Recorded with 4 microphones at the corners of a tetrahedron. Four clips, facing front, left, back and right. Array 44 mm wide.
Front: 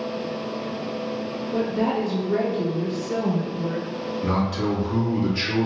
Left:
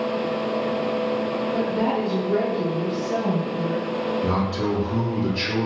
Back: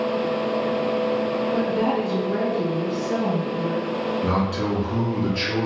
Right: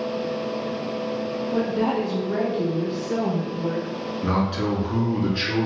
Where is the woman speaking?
125° right, 1.8 m; by 3.9 s 60° right, 2 m.